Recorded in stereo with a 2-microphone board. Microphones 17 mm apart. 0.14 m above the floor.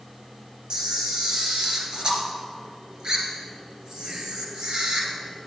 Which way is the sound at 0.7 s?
50° right (ahead or behind).